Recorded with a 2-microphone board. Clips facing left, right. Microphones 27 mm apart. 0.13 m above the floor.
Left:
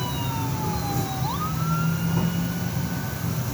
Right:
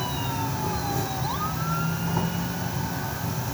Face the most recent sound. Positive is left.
turn(degrees=-35)  # may be behind; listen again after turning